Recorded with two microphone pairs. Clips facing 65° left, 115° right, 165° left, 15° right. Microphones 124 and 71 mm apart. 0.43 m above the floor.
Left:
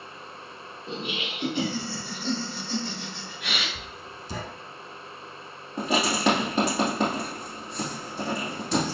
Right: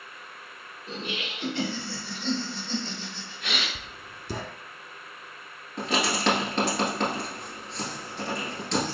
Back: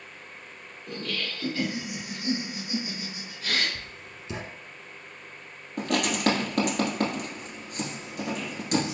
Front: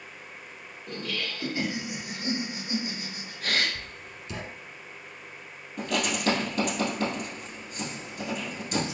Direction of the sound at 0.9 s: 90° left.